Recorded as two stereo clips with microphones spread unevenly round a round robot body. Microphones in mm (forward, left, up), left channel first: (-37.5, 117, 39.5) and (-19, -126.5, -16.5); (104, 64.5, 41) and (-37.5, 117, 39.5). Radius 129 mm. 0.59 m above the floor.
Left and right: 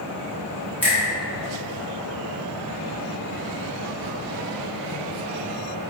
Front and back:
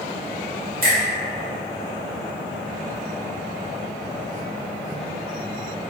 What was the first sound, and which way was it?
A finger snap, 170° right.